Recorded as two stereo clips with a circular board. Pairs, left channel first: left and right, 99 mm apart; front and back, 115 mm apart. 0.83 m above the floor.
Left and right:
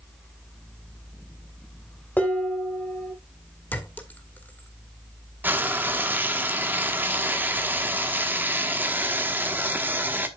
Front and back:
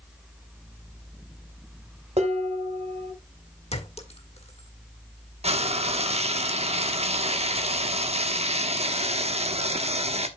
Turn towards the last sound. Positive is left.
turn(degrees=-160)